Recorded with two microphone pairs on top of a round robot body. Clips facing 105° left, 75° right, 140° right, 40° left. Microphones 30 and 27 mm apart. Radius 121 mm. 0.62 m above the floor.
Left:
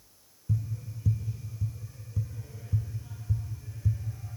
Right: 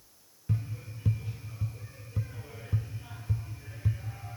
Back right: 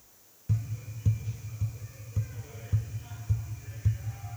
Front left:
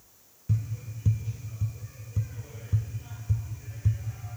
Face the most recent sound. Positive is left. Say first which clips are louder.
# left 1 dB, front left 2 dB
turn(degrees=-65)